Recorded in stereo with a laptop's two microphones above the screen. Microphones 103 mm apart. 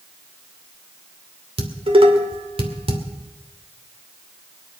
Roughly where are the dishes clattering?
Right.